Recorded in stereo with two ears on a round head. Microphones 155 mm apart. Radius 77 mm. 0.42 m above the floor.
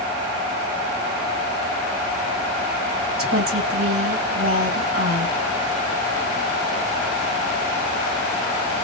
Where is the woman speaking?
55° right (ahead or behind), 2.5 m.